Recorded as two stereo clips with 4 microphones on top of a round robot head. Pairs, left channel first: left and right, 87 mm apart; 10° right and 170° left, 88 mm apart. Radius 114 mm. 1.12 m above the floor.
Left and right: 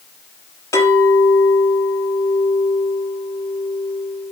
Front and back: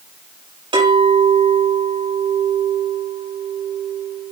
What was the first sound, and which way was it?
A clink, 145° left.